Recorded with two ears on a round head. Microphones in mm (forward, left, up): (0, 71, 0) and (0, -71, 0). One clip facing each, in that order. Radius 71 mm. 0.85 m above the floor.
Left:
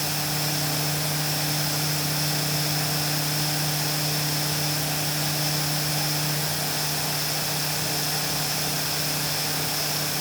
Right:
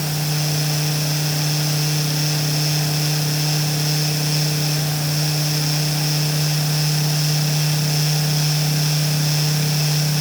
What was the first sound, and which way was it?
Only background noise.